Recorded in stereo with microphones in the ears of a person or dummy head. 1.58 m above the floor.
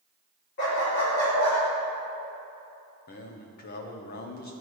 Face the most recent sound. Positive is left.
turn(degrees=40)  # may be behind; listen again after turning